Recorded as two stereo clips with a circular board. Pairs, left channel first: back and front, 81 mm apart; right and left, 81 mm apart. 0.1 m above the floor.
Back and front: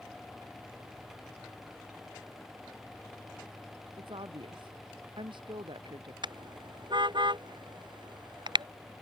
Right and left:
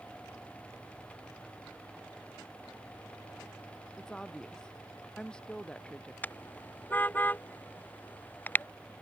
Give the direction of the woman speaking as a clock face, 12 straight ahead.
12 o'clock.